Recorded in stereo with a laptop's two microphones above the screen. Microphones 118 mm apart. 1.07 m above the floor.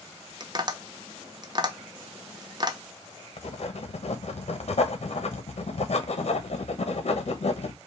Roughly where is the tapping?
Right.